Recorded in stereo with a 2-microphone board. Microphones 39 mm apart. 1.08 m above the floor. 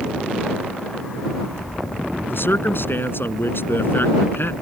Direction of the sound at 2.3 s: 65° left (ahead or behind).